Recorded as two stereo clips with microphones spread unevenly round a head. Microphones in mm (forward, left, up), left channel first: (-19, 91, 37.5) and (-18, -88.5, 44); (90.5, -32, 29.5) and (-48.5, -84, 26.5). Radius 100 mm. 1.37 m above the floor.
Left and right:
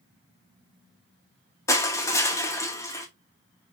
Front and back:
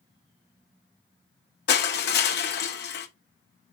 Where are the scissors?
No scissors in this recording.